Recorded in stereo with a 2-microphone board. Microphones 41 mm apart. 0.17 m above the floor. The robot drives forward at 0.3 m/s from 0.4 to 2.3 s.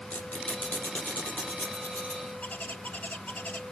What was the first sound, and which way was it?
A squeak, 45° left (ahead or behind).